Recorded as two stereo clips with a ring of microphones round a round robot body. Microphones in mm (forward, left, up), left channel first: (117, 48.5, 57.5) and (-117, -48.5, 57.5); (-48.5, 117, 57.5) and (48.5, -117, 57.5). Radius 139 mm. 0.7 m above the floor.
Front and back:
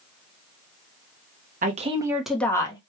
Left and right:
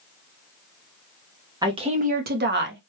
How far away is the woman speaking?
About 0.9 m.